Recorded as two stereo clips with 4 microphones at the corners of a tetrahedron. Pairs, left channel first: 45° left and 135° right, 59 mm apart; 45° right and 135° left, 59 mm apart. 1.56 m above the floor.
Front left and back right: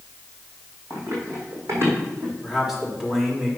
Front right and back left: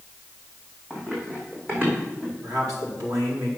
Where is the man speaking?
140° left, 3.5 m.